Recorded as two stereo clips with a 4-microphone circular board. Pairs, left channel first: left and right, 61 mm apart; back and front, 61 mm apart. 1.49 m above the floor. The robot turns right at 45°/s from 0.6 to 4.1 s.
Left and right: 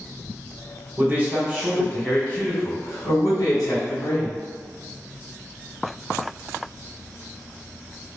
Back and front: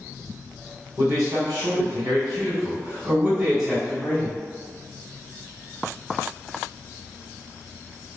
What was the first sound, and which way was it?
A man speaking, 35° right.